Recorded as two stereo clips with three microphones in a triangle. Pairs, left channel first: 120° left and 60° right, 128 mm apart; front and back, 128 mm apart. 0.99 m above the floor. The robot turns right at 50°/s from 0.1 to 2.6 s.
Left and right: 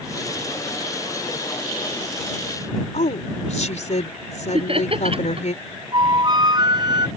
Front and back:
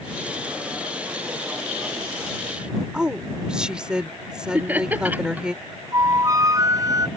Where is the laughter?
105° right.